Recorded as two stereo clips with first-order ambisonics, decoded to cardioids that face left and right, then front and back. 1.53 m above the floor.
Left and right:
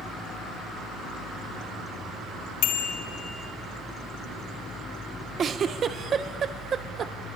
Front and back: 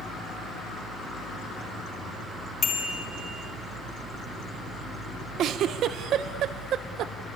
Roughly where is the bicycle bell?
Ahead left.